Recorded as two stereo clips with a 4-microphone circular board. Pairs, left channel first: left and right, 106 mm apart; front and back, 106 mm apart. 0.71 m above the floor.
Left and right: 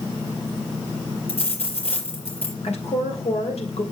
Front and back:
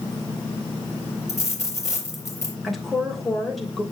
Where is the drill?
I don't hear a drill.